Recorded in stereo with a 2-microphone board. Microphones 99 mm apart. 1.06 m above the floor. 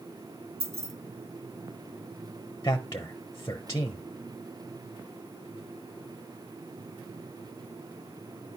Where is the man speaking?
30° left (ahead or behind), 0.9 m.